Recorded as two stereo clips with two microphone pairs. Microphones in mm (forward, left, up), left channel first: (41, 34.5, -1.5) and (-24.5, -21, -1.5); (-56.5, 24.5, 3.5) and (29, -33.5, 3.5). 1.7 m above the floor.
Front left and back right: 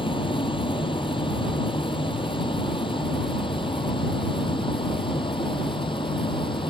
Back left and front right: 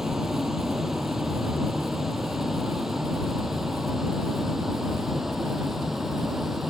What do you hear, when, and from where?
0.0 s a vehicle: 50° left; by 6.7 s 55° left